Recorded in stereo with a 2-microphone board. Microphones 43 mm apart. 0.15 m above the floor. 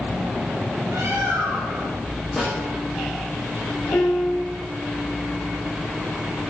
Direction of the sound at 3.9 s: 65° left (ahead or behind).